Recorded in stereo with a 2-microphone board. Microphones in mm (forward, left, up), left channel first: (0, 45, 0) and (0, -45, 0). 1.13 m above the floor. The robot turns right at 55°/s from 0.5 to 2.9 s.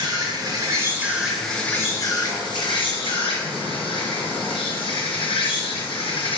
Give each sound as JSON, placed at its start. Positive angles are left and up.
{"t": 0.0, "sound": "an insect", "azimuth_deg": -45, "distance_m": 3.0}